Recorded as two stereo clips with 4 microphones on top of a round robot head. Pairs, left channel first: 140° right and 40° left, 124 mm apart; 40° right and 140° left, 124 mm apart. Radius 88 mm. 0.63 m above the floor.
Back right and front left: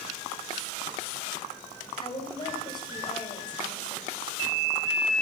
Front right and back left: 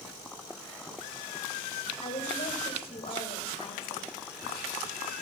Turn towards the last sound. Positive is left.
turn(degrees=-85)